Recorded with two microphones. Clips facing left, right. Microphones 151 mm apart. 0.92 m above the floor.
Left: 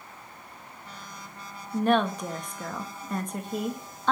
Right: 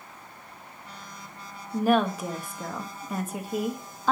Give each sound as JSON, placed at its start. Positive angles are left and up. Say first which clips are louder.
{"t": 1.7, "sound": "a woman speaking", "louder": "right 1 dB", "side_deg": -5, "distance_m": 1.1}